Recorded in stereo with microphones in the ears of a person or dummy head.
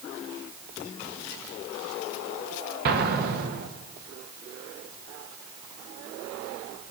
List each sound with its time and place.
2.9 s an explosion: 50° right (ahead or behind), 0.6 m